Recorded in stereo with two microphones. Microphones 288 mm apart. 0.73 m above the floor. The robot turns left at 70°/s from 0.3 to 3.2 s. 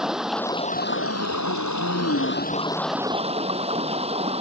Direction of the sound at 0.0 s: Straight behind.